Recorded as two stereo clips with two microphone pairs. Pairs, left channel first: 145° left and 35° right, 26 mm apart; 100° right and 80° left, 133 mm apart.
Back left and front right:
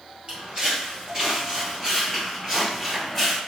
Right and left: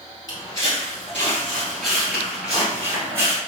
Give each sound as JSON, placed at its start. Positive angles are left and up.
{"t": 0.3, "sound": "footsteps", "azimuth_deg": -55, "distance_m": 2.0}